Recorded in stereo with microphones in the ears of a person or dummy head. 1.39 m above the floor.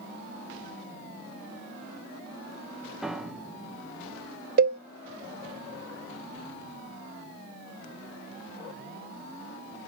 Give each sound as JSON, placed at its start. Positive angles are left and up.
{"t": 3.0, "sound": "a piano", "side_deg": -5, "distance_m": 0.7}
{"t": 4.6, "sound": "a cowbell", "side_deg": -50, "distance_m": 0.7}